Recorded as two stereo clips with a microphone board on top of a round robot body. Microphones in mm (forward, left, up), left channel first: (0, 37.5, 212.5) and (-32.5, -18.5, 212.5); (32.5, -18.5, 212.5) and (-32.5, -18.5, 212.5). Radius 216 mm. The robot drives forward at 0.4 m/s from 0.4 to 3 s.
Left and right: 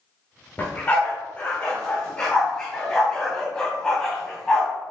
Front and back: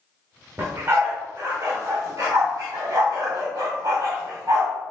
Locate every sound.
0.6 s a dog barking: 125° left, 1.7 m; by 4.7 s 145° left, 2.5 m